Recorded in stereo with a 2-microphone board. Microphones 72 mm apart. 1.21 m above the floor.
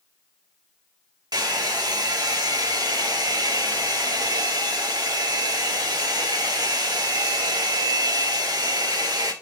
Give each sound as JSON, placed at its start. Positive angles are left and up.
{"t": 1.3, "sound": "a hair dryer", "side_deg": -60, "distance_m": 1.6}